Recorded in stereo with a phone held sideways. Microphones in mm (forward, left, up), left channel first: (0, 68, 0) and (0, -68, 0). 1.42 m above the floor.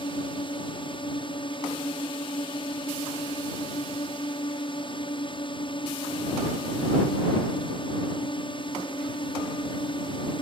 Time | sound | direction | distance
0.0 | a drone | 40° left (ahead or behind) | ?